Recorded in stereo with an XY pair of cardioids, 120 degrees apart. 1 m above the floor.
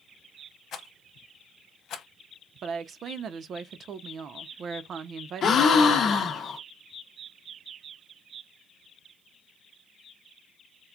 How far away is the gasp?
About 0.8 m.